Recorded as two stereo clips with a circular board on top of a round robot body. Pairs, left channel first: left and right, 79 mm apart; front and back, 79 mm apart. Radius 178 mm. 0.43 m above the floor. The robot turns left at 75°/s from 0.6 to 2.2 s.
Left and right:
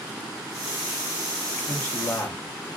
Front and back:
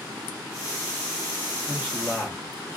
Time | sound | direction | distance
1.7 | a man speaking | 100° left | 1.2 m